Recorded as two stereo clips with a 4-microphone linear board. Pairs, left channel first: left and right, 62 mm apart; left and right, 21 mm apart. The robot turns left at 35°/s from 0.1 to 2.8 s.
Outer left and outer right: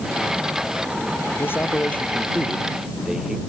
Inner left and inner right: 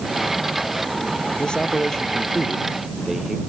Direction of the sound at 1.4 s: 40° left.